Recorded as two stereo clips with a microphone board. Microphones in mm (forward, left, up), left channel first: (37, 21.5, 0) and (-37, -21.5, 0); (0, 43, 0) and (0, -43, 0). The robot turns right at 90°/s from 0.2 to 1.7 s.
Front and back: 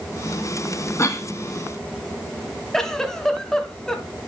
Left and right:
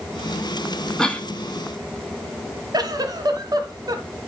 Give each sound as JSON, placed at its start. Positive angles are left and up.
{"t": 1.0, "sound": "a cough", "azimuth_deg": 15, "distance_m": 1.3}
{"t": 2.7, "sound": "a giggle", "azimuth_deg": -55, "distance_m": 1.0}